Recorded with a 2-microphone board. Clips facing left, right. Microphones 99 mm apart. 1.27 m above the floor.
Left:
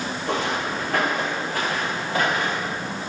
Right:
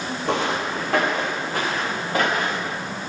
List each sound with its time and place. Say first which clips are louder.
0.2 s footsteps: right 2 dB; 75° right (ahead or behind), 4.5 m; by 2.8 s 50° right (ahead or behind), 6 m